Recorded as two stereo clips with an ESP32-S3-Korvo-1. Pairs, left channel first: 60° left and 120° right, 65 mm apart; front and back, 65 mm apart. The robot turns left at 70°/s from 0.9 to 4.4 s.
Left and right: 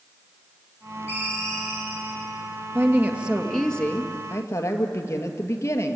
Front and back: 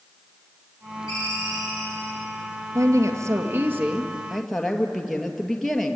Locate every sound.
1.1 s a ringtone: 10° left, 9.5 m; by 2.2 s 70° right, 9.5 m
2.8 s a woman speaking: 155° right, 2.5 m; by 6.0 s 85° left, 2.5 m